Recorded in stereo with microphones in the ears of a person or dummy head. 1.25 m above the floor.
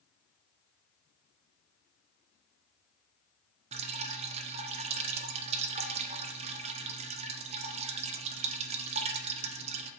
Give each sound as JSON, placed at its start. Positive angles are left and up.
{"t": 3.7, "sound": "dripping", "side_deg": -30, "distance_m": 0.6}